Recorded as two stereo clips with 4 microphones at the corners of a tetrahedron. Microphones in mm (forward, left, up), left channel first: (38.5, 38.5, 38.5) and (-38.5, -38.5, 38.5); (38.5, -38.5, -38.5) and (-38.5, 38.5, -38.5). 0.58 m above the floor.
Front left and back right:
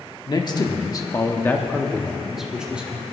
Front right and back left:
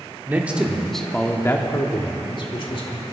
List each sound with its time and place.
0.3 s a man speaking: 70° left, 1.5 m; by 3.0 s 60° right, 2 m